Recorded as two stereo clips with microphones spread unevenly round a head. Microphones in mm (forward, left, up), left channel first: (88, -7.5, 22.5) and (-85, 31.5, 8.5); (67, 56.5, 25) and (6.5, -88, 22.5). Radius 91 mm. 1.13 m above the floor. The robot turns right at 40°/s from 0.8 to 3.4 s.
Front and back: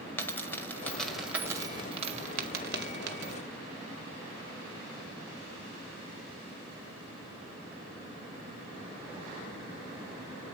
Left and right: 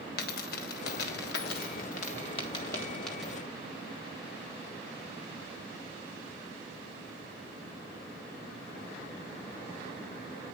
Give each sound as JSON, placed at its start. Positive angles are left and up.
{"t": 0.2, "sound": "a dropped coin", "azimuth_deg": 60, "distance_m": 1.5}